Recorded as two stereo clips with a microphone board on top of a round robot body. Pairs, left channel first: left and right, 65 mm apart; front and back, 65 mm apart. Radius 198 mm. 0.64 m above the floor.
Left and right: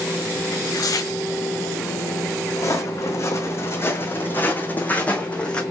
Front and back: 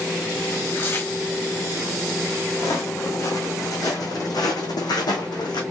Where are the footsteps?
50° left, 2.5 m; by 5.6 s 15° left, 2.5 m.